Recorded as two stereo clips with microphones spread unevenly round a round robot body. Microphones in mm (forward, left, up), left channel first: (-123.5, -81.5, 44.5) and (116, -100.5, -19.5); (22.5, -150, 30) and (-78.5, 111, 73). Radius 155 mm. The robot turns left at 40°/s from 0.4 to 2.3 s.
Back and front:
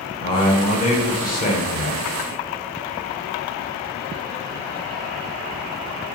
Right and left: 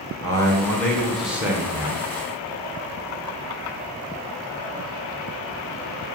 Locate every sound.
0.2 s a man speaking: 110° right, 0.9 m; by 2.1 s 175° right, 0.9 m